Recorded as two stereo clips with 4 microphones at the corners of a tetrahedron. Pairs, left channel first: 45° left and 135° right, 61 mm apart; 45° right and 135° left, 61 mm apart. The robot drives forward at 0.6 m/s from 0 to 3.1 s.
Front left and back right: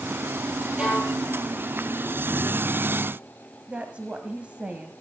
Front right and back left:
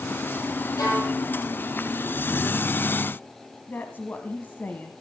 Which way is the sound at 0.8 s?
55° right.